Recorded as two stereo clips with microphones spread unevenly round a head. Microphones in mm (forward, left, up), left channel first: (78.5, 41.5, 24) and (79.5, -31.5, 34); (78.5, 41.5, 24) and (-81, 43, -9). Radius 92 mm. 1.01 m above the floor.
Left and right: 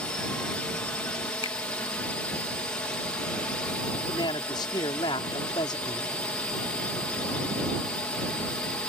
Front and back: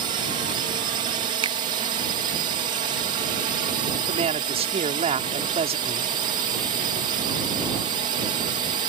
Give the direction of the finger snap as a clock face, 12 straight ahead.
8 o'clock.